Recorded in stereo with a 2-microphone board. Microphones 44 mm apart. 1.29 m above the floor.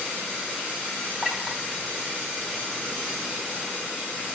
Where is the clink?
10° left (ahead or behind), 4.5 m.